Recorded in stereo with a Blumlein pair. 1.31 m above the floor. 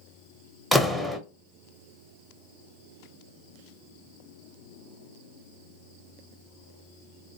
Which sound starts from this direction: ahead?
A door slam, at 0.7 s.